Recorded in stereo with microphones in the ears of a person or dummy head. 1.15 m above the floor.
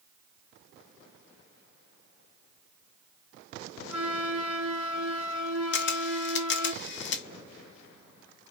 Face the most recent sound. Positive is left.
turn(degrees=45)  # may be behind; listen again after turning